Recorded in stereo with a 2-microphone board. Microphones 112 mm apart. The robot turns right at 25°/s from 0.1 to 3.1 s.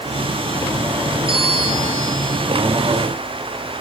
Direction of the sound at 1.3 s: 25° left (ahead or behind).